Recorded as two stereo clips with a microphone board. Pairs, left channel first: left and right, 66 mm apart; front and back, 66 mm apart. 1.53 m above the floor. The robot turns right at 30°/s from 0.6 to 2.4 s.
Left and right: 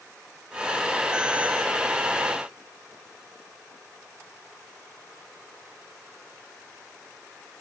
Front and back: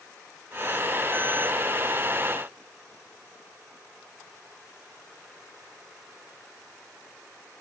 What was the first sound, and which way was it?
Only background noise.